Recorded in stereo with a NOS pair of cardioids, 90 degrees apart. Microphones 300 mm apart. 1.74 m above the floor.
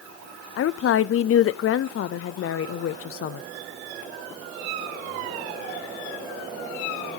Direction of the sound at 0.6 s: 45° left.